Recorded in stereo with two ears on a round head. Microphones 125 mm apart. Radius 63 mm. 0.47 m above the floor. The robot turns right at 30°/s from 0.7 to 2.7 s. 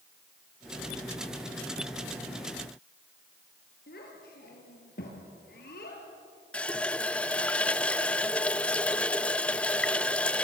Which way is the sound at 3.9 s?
70° left (ahead or behind).